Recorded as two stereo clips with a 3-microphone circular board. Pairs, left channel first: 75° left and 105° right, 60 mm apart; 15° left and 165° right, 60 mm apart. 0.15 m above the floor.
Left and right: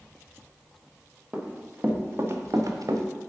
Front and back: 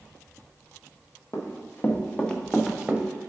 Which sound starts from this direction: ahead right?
Running footsteps, at 1.3 s.